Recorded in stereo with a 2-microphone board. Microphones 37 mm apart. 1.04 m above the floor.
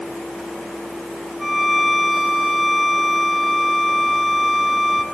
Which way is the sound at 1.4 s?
5° right (ahead or behind).